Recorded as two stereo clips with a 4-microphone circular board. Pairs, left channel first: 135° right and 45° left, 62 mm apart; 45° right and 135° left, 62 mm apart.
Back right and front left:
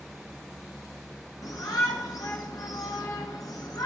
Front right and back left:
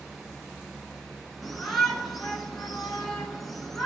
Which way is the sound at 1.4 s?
130° right.